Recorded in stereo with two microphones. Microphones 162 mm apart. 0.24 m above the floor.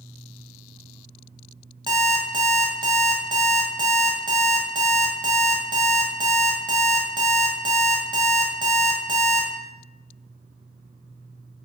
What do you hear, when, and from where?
1.9 s an alarm clock: 30° right (ahead or behind), 0.7 m